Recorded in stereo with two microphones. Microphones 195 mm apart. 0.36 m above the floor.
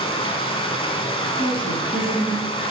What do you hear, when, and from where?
0.0 s running water: 30° left (ahead or behind), 1.1 m
1.4 s a woman speaking: 25° left (ahead or behind), 3.5 m